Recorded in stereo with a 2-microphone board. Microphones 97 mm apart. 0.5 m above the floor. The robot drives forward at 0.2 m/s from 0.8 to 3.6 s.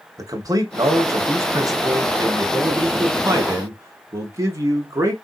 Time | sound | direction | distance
0.2 | a man speaking | 35° right (ahead or behind) | 1.0 m